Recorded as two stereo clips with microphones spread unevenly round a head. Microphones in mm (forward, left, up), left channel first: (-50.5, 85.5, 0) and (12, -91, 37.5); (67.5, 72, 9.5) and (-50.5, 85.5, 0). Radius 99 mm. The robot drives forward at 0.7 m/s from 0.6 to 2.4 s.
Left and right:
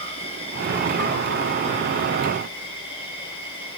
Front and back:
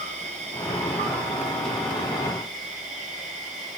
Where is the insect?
165° left, 2.5 m; by 3.8 s 170° left, 4 m.